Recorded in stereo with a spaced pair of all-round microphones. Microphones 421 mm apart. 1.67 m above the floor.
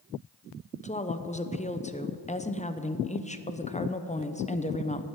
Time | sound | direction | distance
0.8 | a woman speaking | 15° left (ahead or behind) | 0.7 m